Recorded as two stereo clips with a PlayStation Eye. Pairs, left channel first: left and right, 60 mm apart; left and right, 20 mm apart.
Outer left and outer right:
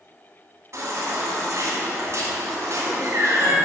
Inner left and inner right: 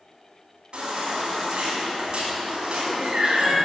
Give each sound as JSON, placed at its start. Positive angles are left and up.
{"t": 0.7, "sound": "a baby crying", "side_deg": -55, "distance_m": 2.5}